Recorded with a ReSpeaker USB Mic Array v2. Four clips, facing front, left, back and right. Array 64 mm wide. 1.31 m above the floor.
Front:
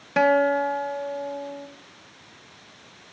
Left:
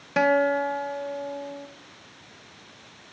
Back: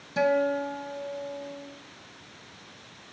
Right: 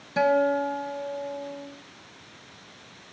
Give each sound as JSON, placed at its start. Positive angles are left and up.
{"t": 0.2, "sound": "a guitar", "azimuth_deg": 35, "distance_m": 0.8}